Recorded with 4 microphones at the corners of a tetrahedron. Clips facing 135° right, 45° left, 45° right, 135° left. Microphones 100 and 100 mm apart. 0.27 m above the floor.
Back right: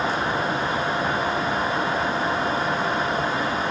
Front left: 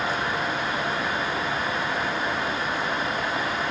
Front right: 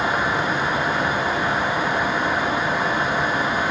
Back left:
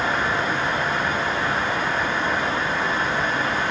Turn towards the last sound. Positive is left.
No sound to turn to.